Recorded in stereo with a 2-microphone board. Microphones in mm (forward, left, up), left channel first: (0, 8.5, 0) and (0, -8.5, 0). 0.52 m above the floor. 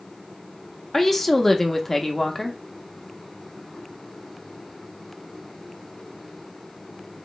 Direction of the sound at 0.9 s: 20° left (ahead or behind).